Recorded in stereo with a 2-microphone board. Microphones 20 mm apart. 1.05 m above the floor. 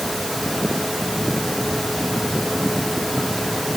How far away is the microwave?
No microwave in this recording.